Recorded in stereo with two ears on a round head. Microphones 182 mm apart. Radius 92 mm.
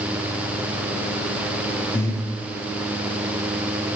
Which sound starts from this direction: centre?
Breathing, at 1.9 s.